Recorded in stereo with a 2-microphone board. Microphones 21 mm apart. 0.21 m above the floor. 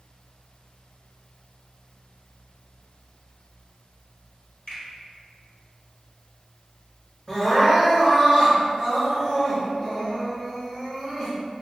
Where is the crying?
25° left (ahead or behind), 1.8 m.